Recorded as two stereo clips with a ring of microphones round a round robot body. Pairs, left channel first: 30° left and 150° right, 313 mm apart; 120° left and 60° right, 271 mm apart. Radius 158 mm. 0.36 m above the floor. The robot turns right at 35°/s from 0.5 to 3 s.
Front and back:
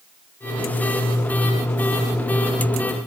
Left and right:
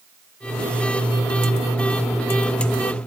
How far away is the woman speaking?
I don't hear a woman speaking.